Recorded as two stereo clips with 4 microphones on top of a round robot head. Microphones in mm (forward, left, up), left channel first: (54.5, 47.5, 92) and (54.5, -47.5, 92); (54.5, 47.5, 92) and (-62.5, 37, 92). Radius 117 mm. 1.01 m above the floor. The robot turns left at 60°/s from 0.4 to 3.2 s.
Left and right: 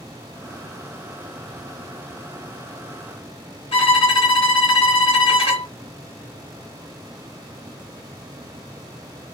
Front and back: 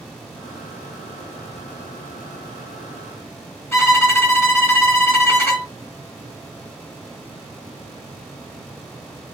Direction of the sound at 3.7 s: 70° left.